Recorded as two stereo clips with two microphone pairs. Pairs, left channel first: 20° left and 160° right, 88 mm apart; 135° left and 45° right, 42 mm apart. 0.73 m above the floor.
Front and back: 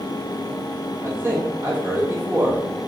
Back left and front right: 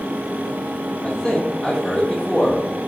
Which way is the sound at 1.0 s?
170° right.